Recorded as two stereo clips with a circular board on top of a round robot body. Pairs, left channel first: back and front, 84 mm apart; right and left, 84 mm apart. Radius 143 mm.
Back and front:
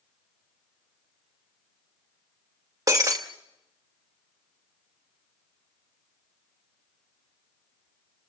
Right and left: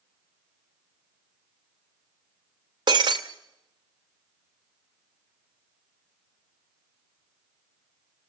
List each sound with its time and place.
2.9 s breaking glass: 50° left, 0.5 m